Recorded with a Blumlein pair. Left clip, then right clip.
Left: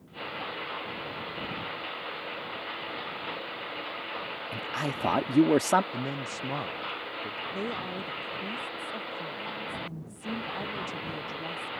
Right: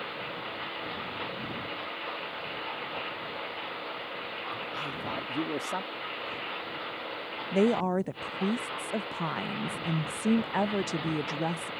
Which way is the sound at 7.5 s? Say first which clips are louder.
Right 7 dB; 60° right.